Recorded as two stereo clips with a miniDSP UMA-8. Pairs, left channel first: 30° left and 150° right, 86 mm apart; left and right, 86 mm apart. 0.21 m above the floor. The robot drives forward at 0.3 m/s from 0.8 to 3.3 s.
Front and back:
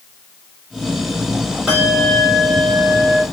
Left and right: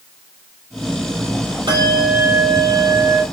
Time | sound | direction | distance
1.7 | a bell | 70° right | 6 m